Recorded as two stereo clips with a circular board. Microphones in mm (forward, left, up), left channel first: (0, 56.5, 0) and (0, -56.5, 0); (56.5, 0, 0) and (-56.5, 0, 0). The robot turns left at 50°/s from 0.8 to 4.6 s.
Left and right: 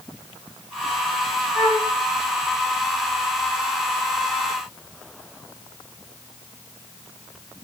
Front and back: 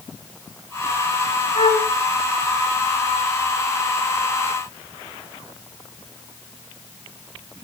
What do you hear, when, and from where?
1.6 s a flute: 10° right, 4.5 m; by 1.9 s 30° right, 4.5 m